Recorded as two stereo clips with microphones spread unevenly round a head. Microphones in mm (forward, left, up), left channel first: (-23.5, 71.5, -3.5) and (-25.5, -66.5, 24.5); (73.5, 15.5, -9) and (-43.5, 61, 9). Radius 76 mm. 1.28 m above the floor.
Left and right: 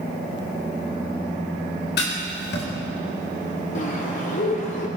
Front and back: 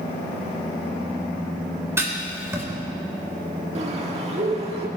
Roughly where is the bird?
Behind left.